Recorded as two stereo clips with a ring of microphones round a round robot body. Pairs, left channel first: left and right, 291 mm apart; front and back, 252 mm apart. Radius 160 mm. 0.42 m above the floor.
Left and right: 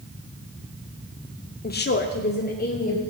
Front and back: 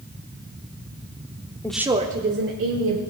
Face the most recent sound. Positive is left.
turn(degrees=150)